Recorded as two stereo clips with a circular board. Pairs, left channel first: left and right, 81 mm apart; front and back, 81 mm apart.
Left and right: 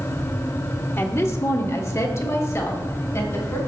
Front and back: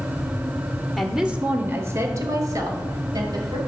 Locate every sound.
1.0 s a woman speaking: 85° left, 0.9 m; by 3.6 s 145° left, 2.5 m